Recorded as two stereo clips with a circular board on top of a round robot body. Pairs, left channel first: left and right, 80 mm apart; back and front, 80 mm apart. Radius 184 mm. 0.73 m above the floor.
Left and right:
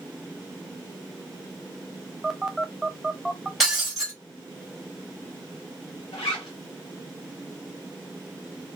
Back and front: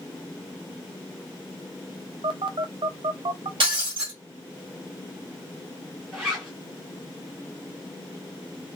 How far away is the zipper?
About 0.6 m.